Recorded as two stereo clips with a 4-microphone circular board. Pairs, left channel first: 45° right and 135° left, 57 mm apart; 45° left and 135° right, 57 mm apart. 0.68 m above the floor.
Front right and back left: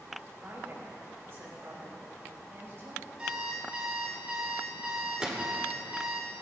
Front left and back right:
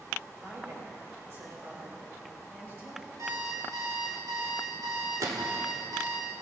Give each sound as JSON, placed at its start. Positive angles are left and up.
{"t": 0.4, "sound": "a woman speaking", "azimuth_deg": 175, "distance_m": 4.5}
{"t": 3.2, "sound": "an alarm clock", "azimuth_deg": -155, "distance_m": 2.5}
{"t": 5.2, "sound": "a gunshot", "azimuth_deg": -150, "distance_m": 1.3}